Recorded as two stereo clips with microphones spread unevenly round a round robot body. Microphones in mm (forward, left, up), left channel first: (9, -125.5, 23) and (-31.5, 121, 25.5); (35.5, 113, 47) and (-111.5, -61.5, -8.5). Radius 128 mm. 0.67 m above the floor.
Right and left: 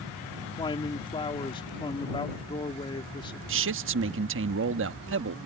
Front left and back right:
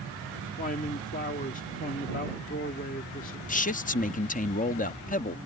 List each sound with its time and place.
0.6 s a man speaking: 10° right
3.5 s a man speaking: 110° left